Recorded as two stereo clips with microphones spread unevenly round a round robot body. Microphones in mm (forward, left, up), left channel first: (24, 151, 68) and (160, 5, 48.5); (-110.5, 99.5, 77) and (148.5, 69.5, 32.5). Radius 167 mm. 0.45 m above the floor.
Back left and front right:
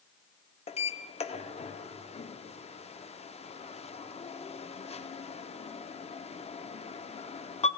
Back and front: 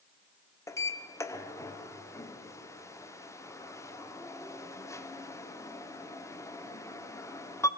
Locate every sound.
0.7 s a sliding door: 85° left, 0.7 m